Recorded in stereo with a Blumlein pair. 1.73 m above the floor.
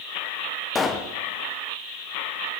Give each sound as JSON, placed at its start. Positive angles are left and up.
{"t": 0.8, "sound": "a pop", "azimuth_deg": 15, "distance_m": 0.9}